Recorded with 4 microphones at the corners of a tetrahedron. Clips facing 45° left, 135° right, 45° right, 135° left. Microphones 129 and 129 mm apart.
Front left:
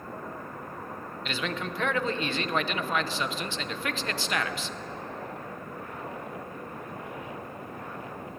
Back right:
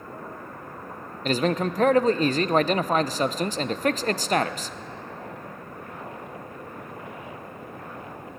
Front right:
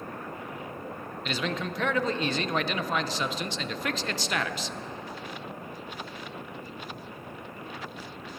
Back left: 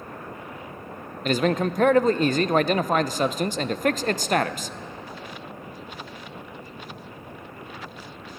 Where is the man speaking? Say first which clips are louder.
Back right 10 dB, back left 10 dB; straight behind, 0.6 m.